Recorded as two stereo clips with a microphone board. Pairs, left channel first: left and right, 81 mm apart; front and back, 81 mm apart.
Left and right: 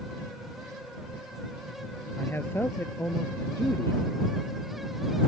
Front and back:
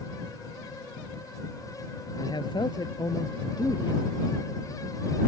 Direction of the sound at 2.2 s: 25° left.